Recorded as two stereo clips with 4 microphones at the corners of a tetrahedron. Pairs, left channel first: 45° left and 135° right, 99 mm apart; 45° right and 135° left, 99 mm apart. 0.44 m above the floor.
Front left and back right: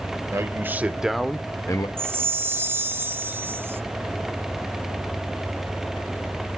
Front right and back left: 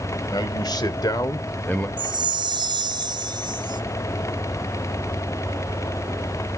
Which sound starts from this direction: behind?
A chime, at 2.0 s.